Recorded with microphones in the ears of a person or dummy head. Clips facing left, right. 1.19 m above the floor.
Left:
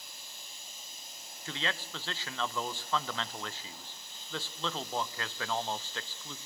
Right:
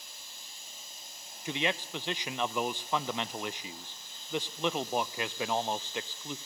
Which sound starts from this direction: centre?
A man speaking, at 1.4 s.